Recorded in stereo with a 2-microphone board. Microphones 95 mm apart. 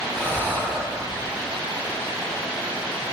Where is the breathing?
20° left (ahead or behind), 3 m.